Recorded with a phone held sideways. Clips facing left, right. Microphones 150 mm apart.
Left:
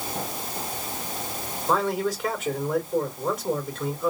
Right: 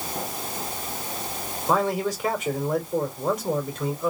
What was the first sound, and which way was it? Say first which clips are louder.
A man speaking: right 1 dB; 5° right (ahead or behind).